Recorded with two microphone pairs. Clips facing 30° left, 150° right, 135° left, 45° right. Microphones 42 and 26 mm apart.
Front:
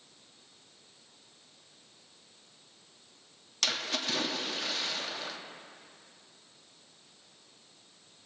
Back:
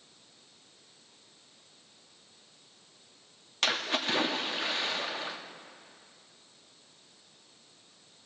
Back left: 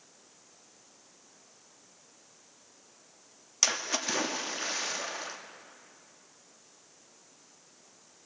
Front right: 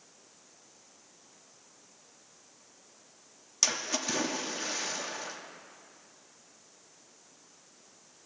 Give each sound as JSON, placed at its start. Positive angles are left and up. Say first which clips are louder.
{"t": 3.6, "sound": "a splash", "louder": "back 3 dB, back left 1 dB", "azimuth_deg": -175, "distance_m": 0.6}